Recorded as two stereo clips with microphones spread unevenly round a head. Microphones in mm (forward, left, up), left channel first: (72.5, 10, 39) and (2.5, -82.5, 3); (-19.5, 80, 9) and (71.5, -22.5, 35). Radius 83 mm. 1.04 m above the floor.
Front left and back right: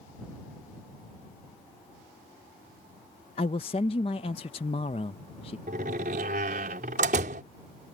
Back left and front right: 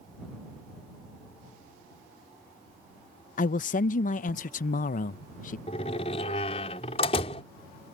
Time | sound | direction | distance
3.4 | a man speaking | 110° left | ?
5.7 | a door slam | 170° right | ?